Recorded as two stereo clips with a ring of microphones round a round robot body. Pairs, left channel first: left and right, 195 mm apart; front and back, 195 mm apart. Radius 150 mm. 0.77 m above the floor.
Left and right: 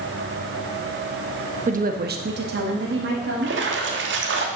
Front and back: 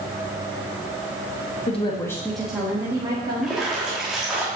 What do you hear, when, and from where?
1.7 s a woman speaking: 50° right, 0.9 m; by 3.5 s 115° right, 1.7 m
3.4 s a splash: 90° right, 1.5 m